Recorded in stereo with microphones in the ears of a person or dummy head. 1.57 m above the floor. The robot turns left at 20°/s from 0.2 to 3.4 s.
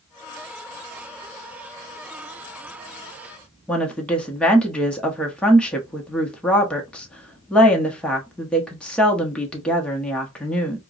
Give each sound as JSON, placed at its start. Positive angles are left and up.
{"t": 3.7, "sound": "a woman speaking", "side_deg": 5, "distance_m": 1.0}